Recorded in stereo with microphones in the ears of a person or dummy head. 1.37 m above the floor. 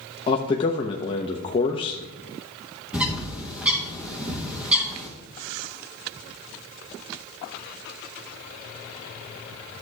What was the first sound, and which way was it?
A man speaking, 40° left (ahead or behind).